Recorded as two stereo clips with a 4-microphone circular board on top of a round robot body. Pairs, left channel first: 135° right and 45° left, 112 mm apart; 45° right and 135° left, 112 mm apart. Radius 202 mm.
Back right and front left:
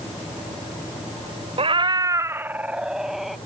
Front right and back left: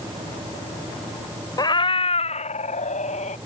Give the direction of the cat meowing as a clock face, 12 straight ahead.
12 o'clock.